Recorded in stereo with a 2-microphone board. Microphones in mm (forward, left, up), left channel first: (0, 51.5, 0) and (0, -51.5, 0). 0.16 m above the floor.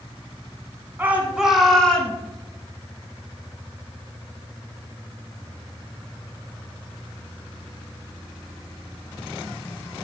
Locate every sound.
1.0 s a shout: 15° right (ahead or behind), 1.2 m; by 2.2 s 10° left (ahead or behind), 1.7 m